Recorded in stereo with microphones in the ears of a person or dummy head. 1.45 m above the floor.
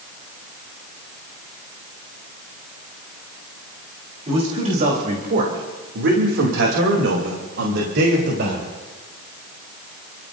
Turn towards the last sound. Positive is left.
turn(degrees=-55)  # may be behind; listen again after turning